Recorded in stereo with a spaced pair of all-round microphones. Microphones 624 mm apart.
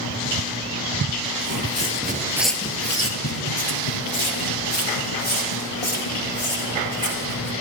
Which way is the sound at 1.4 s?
35° right (ahead or behind).